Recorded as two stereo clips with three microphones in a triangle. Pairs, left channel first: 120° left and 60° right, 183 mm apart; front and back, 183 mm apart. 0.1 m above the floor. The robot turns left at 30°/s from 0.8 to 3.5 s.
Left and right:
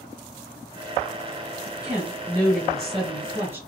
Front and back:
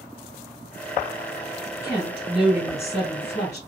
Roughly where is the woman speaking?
Ahead left.